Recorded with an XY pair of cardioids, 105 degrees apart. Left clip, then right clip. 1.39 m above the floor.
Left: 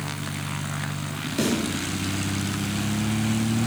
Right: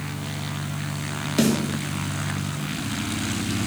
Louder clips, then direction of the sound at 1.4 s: Right 3 dB; 35° right.